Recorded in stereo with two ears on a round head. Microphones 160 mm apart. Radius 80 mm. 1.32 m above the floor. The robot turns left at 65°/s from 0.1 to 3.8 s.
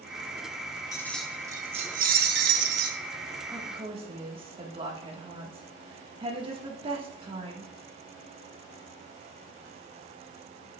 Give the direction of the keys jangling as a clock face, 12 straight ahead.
11 o'clock.